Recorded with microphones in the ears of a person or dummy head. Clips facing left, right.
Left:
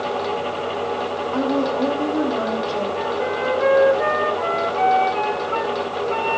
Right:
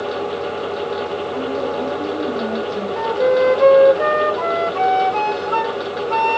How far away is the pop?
I don't hear a pop.